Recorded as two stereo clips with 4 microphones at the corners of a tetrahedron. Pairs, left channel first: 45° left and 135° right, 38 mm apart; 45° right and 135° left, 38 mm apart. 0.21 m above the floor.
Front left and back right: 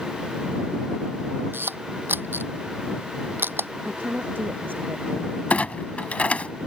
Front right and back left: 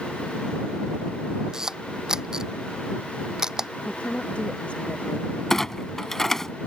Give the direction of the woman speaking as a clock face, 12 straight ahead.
4 o'clock.